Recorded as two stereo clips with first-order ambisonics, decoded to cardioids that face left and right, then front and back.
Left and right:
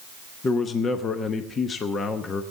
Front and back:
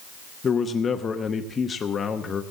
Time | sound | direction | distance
0.4 | a man speaking | 50° left | 0.8 m